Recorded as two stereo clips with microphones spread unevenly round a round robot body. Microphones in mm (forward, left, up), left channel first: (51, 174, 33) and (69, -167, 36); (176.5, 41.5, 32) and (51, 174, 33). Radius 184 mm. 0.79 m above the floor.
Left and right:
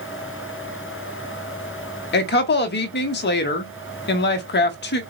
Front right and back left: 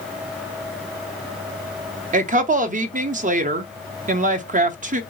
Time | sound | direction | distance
2.1 | a woman speaking | 140° left | 0.7 m